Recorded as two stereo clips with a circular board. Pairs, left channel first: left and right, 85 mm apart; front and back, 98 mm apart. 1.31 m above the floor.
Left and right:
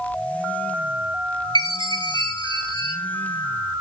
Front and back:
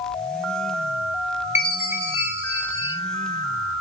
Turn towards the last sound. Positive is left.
turn(degrees=-115)